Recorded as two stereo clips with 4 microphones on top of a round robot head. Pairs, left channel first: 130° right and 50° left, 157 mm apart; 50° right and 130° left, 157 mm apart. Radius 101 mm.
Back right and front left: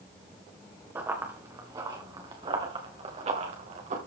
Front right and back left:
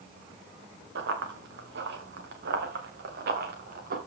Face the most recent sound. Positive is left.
turn(degrees=100)